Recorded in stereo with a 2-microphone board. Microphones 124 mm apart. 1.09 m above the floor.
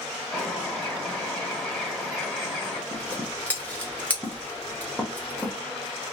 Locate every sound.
0.3 s a bird: 5° left (ahead or behind), 1.2 m
2.9 s scissors: 15° left (ahead or behind), 0.9 m